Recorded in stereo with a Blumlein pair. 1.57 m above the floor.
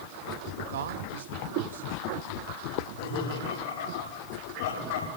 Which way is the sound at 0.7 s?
60° right.